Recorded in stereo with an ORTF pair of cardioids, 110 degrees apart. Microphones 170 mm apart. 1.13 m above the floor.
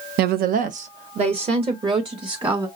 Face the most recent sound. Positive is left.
turn(degrees=-25)